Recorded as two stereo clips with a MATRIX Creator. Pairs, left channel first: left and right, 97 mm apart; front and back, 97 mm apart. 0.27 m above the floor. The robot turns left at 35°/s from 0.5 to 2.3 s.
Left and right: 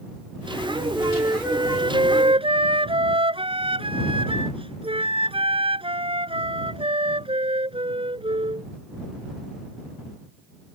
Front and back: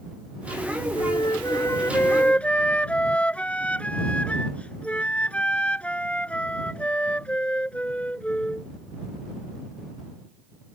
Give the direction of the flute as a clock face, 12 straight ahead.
1 o'clock.